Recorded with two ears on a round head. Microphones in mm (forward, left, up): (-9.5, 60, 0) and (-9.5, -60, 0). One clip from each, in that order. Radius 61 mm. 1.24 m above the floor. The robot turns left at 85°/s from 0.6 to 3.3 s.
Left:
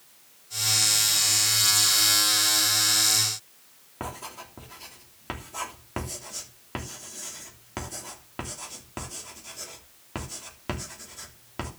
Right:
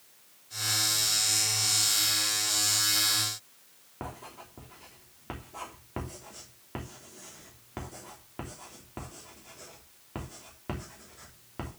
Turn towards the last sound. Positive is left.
turn(degrees=75)  # may be behind; listen again after turning